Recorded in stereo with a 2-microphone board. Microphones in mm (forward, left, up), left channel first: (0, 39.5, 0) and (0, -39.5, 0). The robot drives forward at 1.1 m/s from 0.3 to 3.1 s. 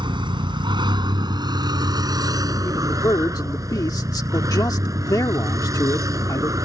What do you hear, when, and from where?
0.0 s a vehicle: 80° right; by 6.7 s 45° right (ahead or behind)
2.6 s a man speaking: 40° left (ahead or behind); by 6.5 s 55° left (ahead or behind)